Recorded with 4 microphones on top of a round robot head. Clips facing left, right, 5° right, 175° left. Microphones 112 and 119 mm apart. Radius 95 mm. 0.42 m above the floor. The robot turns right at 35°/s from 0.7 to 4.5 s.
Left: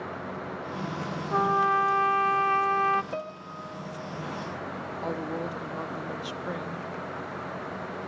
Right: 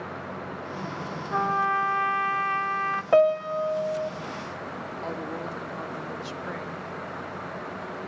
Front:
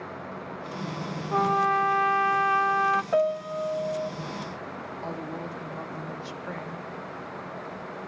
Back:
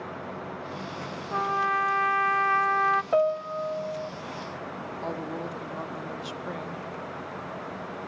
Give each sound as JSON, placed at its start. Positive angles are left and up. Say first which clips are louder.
{"t": 1.3, "sound": "a trumpet", "louder": "left 1 dB, front 4 dB", "azimuth_deg": 15, "distance_m": 0.6}
{"t": 3.1, "sound": "a piano", "louder": "right 17 dB, even", "azimuth_deg": -105, "distance_m": 0.7}
{"t": 5.0, "sound": "a woman speaking", "louder": "left 2 dB, back 2 dB", "azimuth_deg": 140, "distance_m": 1.0}